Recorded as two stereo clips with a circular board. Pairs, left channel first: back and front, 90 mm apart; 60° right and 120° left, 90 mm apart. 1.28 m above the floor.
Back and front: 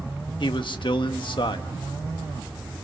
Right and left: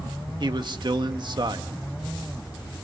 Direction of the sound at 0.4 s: 155° left.